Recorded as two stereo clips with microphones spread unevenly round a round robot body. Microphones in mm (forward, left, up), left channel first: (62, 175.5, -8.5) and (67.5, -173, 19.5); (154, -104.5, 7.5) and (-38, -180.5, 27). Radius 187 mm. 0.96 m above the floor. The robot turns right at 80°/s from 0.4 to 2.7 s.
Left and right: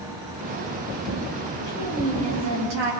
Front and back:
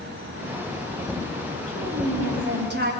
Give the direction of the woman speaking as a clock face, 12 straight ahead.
7 o'clock.